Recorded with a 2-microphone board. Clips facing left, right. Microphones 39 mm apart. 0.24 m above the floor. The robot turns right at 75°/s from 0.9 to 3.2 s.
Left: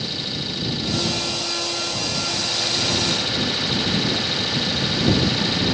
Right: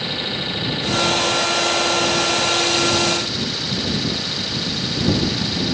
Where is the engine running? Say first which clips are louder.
Right 4 dB; 150° right; by 5.7 s 20° left.